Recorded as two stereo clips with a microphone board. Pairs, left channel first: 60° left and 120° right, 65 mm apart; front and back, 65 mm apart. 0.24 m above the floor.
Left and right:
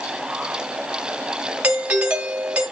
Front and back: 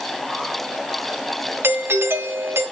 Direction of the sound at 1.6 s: Straight behind.